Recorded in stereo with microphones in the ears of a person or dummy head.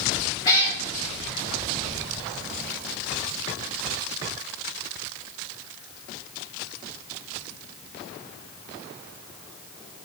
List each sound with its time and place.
0.5 s a cat meowing: 20° left (ahead or behind), 1.7 m